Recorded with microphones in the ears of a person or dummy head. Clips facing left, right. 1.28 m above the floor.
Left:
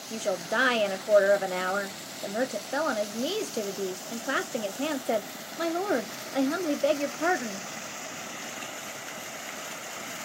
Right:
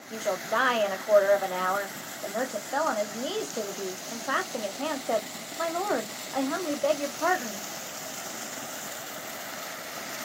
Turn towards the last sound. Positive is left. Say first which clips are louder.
# even
turn(degrees=15)  # may be behind; listen again after turning